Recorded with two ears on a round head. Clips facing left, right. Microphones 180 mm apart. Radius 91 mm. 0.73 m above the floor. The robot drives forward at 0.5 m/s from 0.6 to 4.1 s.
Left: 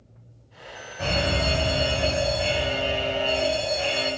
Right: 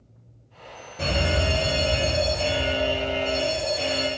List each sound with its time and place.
1.0 s a fire alarm: 45° right (ahead or behind), 3.5 m; by 4.1 s 55° right (ahead or behind), 3 m